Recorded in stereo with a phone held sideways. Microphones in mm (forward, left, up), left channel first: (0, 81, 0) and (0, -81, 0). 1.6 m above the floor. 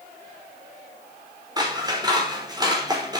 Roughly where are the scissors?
Right.